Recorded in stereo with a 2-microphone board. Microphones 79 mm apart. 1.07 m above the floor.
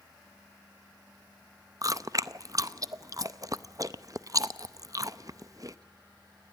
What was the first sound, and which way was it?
Chewing, 50° right (ahead or behind).